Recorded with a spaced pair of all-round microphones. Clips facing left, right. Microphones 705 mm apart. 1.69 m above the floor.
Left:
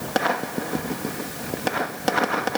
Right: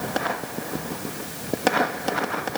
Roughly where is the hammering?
I don't hear hammering.